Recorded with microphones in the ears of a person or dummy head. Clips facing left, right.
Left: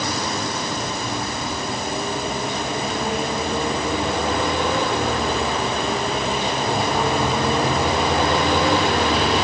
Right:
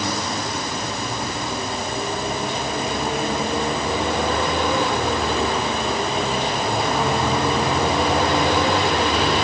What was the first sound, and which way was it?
Only background noise.